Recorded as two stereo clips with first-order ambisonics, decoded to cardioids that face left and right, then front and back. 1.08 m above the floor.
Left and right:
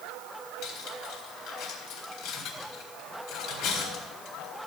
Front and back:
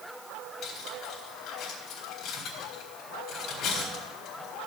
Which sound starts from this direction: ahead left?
Cutlery clinking, at 0.6 s.